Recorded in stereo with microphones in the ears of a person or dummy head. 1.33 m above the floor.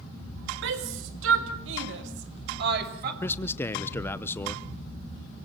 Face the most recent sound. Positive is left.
turn(degrees=10)  # may be behind; listen again after turning